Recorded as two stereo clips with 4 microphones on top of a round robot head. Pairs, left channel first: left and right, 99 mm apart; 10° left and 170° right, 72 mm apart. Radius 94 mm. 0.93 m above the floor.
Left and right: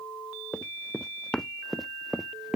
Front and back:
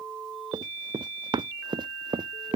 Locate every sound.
0.5 s running footsteps: 170° left; by 2.6 s 175° right